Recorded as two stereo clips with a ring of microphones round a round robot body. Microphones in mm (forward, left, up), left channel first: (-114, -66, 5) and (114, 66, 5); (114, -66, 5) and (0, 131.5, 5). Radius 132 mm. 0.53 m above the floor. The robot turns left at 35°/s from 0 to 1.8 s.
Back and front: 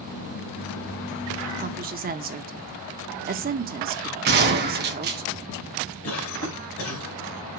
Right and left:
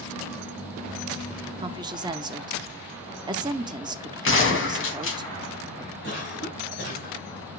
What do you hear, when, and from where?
1.6 s a woman speaking: 65° left, 0.8 m; by 5.2 s 60° left, 0.8 m
4.2 s a gunshot: 25° right, 2.5 m
6.0 s a cough: 110° right, 4 m